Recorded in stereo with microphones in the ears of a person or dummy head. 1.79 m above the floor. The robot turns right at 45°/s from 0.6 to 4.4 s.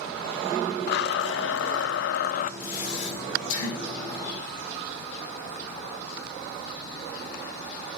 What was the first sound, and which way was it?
A blender, 65° left.